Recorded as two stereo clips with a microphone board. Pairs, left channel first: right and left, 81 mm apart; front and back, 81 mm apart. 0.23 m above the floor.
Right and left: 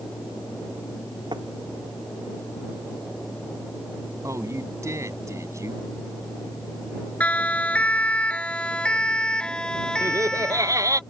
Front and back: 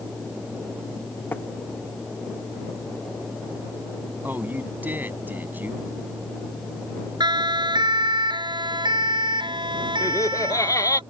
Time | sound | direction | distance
1.3 | tapping | 65° left | ?
4.2 | a man speaking | 120° left | ?
7.2 | a siren | 160° right | ?
10.0 | laughter | 45° left | ?